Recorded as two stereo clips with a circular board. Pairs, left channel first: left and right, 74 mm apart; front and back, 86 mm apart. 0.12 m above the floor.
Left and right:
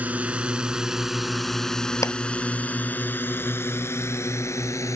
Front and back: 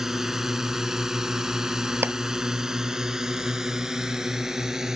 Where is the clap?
120° left.